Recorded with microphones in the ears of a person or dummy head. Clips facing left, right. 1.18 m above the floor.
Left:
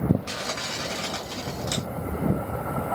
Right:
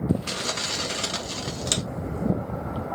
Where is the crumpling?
40° right (ahead or behind), 0.7 m.